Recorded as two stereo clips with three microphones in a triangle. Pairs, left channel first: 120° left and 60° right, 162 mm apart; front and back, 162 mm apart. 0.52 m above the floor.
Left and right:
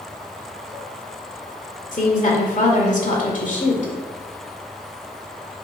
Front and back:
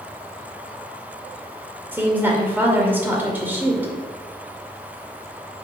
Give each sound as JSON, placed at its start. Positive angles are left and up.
{"t": 1.9, "sound": "a woman speaking", "azimuth_deg": 105, "distance_m": 2.0}